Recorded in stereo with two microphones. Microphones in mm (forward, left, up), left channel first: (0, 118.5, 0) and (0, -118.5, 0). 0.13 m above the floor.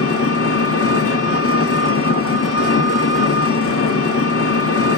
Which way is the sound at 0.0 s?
70° left (ahead or behind).